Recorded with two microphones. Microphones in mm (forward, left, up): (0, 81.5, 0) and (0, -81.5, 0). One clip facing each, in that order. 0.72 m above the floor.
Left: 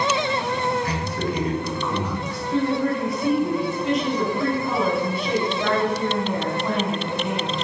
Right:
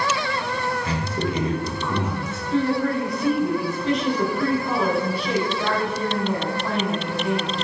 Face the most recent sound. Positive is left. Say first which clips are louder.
# right 1 dB
turn(degrees=0)  # may be behind; listen again after turning